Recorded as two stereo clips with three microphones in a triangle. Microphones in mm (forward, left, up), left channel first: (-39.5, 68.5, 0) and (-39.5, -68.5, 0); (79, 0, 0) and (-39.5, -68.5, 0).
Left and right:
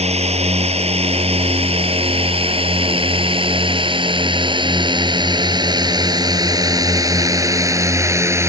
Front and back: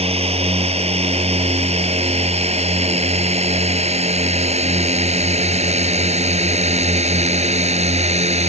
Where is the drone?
120° right; by 8.5 s 155° right.